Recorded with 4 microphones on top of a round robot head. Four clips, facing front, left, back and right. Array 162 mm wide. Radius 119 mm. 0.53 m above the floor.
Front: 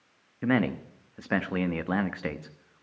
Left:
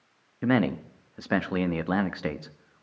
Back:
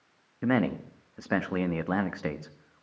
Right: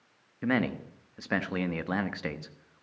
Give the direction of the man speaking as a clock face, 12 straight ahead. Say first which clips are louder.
Left 4 dB, even; 8 o'clock.